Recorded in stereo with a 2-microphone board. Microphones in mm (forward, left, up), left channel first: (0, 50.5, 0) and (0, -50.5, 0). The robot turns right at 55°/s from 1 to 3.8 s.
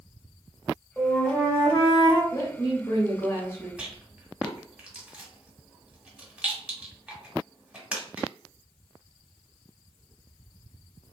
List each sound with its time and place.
1.0 s a flute: 5° right, 1.0 m; by 2.2 s 65° left, 1.0 m
2.3 s a woman speaking: 70° left, 1.2 m; by 3.7 s 145° left, 1.2 m
3.8 s a rattle: 10° right (ahead or behind), 1.0 m